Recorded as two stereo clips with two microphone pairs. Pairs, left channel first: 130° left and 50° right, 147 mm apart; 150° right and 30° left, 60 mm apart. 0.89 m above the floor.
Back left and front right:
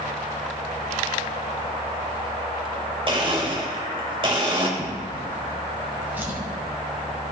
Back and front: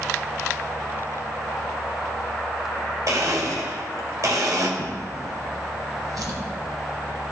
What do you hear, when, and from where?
3.1 s a blender: straight ahead, 1.6 m
4.8 s a drawer: 25° left, 2 m